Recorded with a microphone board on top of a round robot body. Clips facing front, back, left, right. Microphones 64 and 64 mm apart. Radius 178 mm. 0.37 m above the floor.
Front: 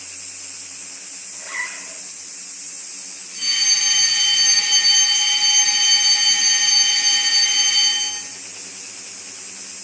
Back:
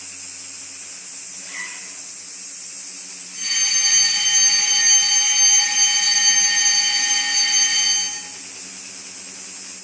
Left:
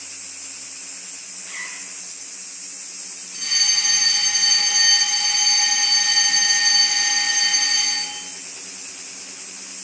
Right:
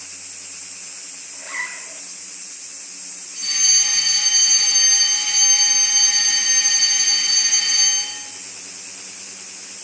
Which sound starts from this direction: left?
A fire alarm, at 3.3 s.